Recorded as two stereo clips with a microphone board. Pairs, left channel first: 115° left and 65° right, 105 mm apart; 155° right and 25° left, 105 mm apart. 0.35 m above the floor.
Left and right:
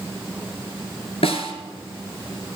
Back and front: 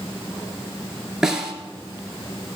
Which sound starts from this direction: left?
A snare drum, at 1.2 s.